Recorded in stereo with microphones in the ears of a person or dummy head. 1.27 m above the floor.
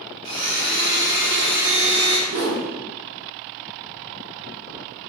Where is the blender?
30° right (ahead or behind), 1.7 m.